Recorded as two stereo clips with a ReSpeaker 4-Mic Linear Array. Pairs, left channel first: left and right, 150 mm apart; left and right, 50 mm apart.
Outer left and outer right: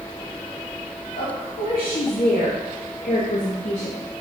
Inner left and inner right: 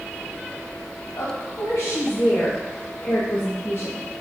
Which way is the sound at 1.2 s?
80° left.